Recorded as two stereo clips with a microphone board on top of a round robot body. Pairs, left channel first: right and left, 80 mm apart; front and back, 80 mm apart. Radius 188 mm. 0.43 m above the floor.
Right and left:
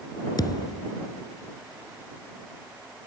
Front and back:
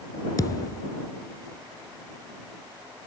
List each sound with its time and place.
0.4 s a thud: 50° right